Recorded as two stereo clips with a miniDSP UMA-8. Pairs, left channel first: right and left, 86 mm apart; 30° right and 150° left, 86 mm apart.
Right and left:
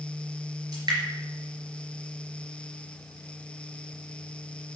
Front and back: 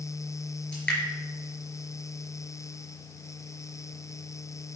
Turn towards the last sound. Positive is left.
turn(degrees=50)